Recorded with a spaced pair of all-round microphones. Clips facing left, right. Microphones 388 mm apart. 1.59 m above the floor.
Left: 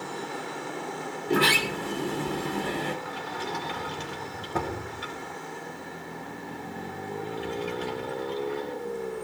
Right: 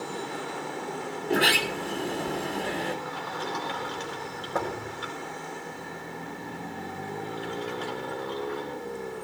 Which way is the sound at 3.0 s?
45° left (ahead or behind).